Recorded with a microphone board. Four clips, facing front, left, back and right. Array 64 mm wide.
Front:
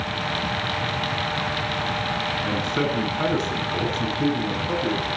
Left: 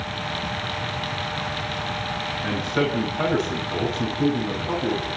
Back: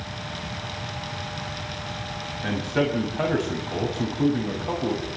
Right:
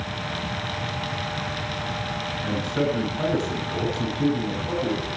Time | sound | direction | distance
2.4 | a man speaking | 165° left | 7.5 m